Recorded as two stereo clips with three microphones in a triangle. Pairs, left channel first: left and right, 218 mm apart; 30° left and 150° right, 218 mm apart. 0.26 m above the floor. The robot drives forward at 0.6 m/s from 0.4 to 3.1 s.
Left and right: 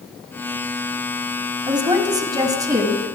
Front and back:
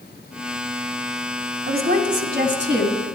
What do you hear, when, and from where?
1.7 s a woman speaking: 150° right, 1.6 m; by 3.0 s 165° right, 2 m